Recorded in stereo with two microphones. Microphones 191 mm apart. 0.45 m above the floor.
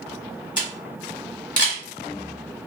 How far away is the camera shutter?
About 1.3 m.